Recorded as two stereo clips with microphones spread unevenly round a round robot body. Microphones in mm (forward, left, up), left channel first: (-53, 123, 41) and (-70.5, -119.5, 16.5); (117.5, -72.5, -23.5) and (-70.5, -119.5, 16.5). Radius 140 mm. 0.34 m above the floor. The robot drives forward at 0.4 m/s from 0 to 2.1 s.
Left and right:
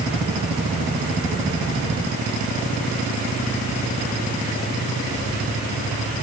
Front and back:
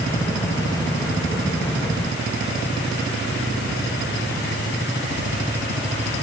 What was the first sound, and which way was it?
Only background noise.